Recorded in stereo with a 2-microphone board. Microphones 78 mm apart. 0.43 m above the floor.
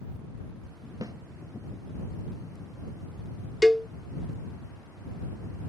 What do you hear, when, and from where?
1.0 s a snare drum: 45° right (ahead or behind)
3.6 s a cowbell: 5° right (ahead or behind)